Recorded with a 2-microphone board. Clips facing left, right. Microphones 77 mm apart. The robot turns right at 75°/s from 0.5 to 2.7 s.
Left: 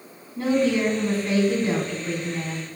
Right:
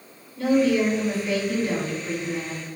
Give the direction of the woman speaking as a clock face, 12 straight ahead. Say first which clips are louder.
Right 1 dB; 10 o'clock.